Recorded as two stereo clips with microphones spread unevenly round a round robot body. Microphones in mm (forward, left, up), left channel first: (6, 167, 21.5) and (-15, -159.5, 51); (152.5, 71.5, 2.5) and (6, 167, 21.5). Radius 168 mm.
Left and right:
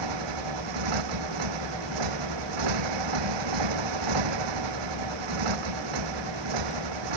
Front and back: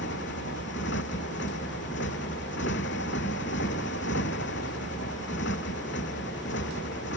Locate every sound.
0.0 s a motorcycle: 90° right